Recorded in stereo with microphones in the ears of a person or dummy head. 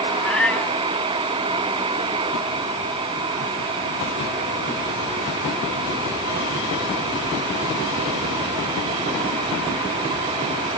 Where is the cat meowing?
5° left (ahead or behind).